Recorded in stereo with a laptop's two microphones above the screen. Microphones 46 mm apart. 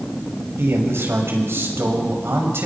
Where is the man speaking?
60° right (ahead or behind), 6 m.